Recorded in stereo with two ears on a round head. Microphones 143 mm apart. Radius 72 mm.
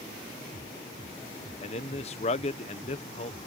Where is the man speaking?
40° left (ahead or behind).